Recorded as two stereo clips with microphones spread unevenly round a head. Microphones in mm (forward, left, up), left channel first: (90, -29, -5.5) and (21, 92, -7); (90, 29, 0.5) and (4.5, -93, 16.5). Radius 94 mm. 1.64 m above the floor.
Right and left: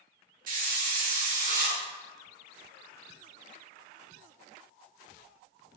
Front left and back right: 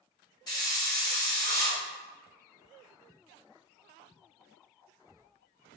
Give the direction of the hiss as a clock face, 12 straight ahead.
8 o'clock.